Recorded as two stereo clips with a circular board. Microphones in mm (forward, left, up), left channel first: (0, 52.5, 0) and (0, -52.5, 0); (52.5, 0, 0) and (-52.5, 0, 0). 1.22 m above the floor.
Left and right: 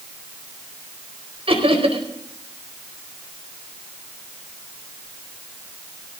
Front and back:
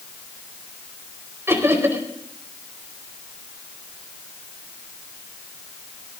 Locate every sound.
1.5 s laughter: 115° right, 4.5 m